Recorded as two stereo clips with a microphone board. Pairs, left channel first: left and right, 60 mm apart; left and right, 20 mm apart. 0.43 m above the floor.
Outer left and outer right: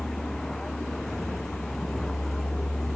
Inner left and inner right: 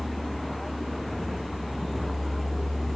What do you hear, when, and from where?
0.0 s a vehicle: 5° left (ahead or behind)